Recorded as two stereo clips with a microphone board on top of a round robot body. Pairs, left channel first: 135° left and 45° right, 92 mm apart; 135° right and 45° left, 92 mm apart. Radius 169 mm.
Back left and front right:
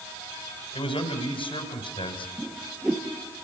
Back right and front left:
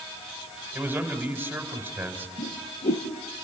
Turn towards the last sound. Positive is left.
turn(degrees=-130)